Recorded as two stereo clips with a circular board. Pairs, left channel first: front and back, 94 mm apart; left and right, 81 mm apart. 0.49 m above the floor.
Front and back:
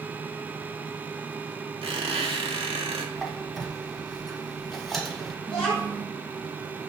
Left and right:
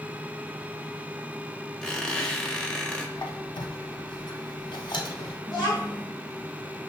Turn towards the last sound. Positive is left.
turn(degrees=45)